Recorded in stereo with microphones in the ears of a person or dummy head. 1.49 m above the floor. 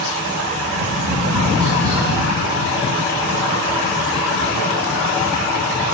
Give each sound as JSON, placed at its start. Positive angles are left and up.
{"t": 0.7, "sound": "tapping", "side_deg": -20, "distance_m": 2.0}